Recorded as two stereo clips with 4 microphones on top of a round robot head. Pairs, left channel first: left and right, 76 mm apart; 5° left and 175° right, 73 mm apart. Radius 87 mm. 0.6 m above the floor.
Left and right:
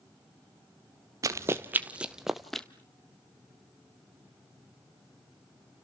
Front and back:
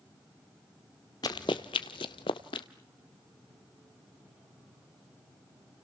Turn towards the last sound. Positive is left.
turn(degrees=5)